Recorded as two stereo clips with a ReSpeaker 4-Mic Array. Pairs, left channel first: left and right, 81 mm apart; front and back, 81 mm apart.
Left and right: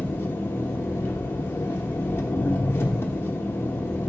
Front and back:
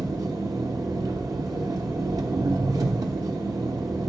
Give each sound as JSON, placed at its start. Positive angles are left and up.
{"t": 0.0, "sound": "an engine running", "azimuth_deg": 145, "distance_m": 0.8}